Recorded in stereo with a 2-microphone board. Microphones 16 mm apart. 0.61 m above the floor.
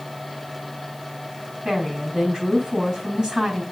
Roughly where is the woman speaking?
Right.